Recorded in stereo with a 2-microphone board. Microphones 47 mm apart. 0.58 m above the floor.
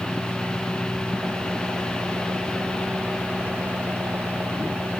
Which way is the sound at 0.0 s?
55° right (ahead or behind).